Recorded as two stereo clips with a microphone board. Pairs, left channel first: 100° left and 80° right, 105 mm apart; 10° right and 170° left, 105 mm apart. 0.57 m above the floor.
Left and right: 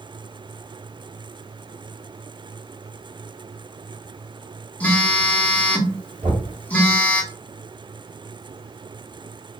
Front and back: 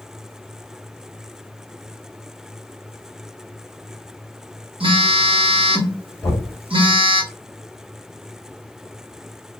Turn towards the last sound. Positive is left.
turn(degrees=-80)